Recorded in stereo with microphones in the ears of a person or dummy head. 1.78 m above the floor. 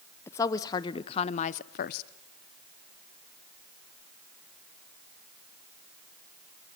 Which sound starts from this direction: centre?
A woman speaking, at 0.3 s.